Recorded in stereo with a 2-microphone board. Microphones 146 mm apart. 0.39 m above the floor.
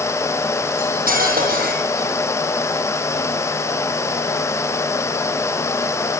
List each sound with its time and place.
0.8 s cutlery clinking: 80° right, 9.5 m